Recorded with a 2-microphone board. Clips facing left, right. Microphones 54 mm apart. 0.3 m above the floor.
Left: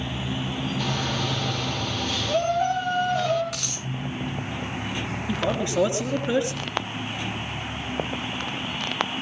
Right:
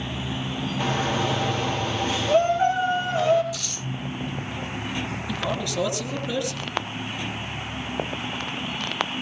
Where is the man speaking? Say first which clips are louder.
Left 4 dB; 30° left (ahead or behind), 6 m.